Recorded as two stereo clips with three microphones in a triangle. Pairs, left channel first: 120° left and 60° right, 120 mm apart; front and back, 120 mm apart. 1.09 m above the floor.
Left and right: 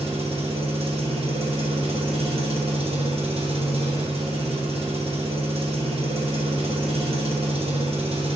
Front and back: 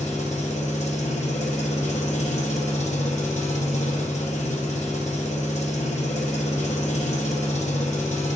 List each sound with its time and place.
0.0 s an engine running: 20° right, 0.7 m